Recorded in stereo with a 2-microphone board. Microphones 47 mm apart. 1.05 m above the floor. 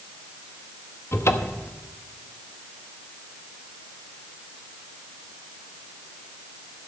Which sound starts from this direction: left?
A cupboard door, at 1.1 s.